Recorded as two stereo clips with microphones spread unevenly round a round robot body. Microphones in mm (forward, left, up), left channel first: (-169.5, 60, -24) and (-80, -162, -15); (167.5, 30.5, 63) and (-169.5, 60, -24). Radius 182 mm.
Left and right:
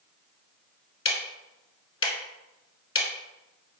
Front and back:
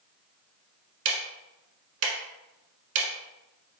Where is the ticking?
150° left, 0.9 m.